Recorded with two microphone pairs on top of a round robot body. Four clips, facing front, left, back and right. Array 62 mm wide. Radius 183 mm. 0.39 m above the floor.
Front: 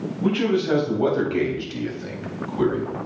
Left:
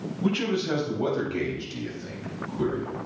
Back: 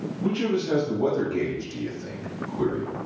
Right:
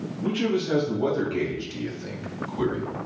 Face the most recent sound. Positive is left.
turn(degrees=-30)